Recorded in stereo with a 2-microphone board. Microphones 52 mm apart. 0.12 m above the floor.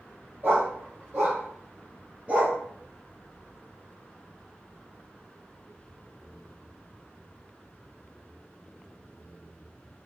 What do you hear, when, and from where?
0.4 s a dog barking: 45° right (ahead or behind), 1.9 m; by 2.6 s 25° right (ahead or behind), 0.9 m